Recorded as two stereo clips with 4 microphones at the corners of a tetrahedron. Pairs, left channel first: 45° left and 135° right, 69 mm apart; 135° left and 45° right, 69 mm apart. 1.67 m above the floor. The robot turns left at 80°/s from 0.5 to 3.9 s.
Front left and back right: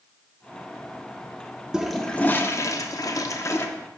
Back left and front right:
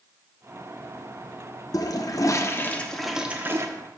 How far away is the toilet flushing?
About 0.7 m.